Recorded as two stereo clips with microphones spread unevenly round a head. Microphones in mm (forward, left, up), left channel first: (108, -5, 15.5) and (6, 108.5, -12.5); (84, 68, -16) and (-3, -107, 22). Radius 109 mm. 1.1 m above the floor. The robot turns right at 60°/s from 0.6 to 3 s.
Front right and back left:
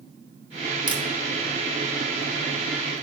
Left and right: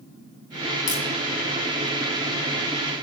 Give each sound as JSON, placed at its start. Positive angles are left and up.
{"t": 0.9, "sound": "a crack", "azimuth_deg": 70, "distance_m": 2.5}